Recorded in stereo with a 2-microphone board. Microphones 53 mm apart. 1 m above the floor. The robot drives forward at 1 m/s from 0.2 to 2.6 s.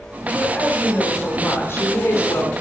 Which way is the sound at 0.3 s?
30° left (ahead or behind).